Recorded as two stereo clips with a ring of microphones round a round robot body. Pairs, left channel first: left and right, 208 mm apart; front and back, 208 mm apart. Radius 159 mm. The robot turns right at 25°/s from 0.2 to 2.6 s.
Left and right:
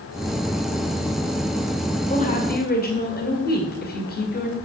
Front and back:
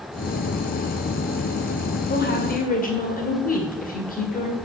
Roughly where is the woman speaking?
Ahead left.